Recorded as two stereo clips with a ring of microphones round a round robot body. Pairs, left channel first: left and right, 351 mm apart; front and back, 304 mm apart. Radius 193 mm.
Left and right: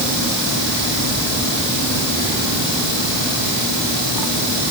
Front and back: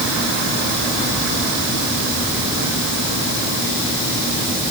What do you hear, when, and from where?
Only background noise.